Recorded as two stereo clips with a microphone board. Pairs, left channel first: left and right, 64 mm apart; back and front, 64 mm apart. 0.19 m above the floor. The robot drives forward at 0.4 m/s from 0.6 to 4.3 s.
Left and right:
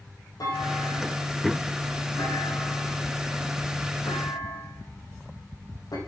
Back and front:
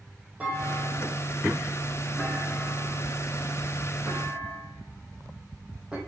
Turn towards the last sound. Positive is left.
turn(degrees=80)